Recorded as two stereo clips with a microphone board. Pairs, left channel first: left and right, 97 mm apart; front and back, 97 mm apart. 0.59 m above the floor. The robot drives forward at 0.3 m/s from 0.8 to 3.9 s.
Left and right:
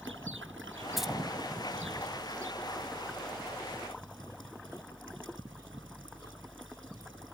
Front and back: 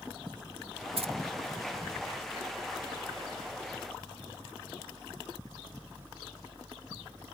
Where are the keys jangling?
175° right.